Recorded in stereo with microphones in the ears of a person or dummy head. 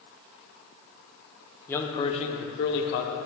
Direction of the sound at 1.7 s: 15° left (ahead or behind).